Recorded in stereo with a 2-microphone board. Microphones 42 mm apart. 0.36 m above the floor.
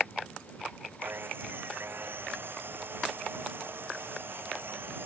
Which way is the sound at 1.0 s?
65° right (ahead or behind).